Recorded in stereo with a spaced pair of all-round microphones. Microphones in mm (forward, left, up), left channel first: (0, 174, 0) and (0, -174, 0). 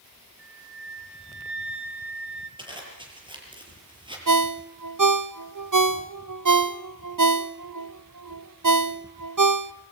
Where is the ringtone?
60° right (ahead or behind), 0.7 m.